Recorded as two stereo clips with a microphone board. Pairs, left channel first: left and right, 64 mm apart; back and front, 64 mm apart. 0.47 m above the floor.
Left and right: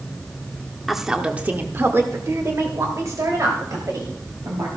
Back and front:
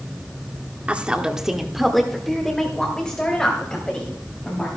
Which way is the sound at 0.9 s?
5° right.